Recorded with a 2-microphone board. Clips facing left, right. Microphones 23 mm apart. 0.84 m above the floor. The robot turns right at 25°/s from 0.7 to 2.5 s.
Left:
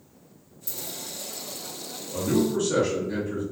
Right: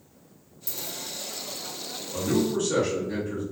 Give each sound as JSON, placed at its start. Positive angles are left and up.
{"t": 0.7, "sound": "a dropped coin", "side_deg": -70, "distance_m": 1.2}
{"t": 2.1, "sound": "a man speaking", "side_deg": 0, "distance_m": 1.3}